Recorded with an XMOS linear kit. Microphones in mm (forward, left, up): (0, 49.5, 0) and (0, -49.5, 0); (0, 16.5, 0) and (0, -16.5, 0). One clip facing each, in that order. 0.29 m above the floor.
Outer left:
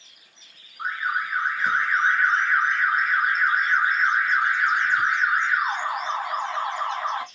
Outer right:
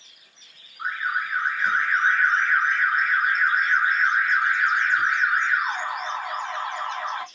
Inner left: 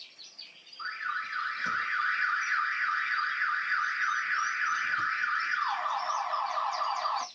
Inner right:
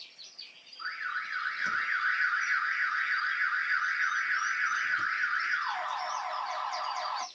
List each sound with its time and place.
0.8 s an alarm: 5° left (ahead or behind), 2.5 m